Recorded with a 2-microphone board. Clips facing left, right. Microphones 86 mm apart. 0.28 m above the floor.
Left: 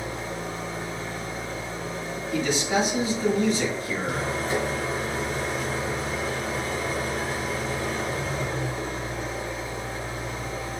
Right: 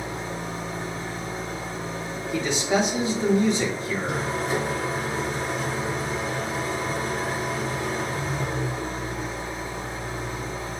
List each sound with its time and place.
0.0 s an engine running: 25° right (ahead or behind), 1.4 m
2.3 s a man speaking: 25° right (ahead or behind), 1.1 m